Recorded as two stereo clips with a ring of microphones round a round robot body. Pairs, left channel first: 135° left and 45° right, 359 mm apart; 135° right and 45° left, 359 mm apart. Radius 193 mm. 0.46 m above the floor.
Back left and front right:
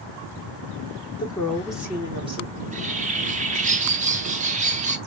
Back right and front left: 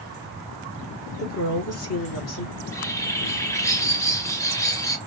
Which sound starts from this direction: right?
A bird, at 2.6 s.